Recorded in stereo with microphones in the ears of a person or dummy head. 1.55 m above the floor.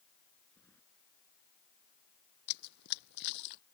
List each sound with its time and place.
0.6 s keys jangling: 10° left (ahead or behind)
2.5 s running footsteps: 65° left (ahead or behind)